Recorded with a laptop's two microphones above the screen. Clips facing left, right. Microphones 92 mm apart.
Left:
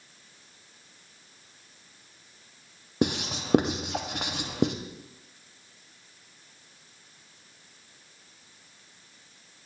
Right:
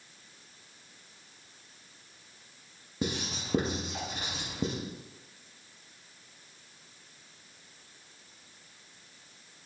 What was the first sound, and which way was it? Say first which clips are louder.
Writing: left 7 dB; 70° left (ahead or behind).